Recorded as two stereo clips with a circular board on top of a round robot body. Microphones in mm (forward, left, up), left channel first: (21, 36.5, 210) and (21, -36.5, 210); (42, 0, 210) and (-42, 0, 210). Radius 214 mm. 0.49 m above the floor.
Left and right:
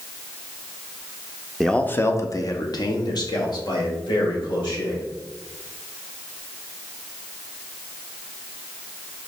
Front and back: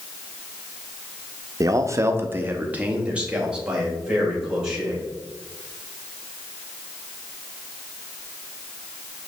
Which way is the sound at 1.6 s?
Straight behind.